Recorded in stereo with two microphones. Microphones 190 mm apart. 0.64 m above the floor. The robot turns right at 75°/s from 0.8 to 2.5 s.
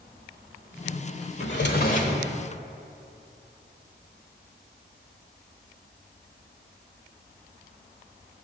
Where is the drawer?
95° left, 1.4 m; by 2.2 s 160° left, 1.4 m.